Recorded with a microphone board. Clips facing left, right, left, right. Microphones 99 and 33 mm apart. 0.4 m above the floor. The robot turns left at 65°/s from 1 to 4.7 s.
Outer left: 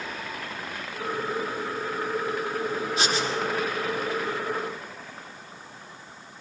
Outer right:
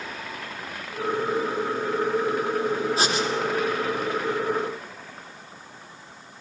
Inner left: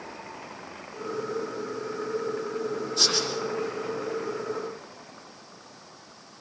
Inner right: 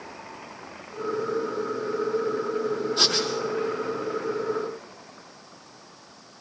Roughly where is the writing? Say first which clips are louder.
Outer right 2 dB, even; right.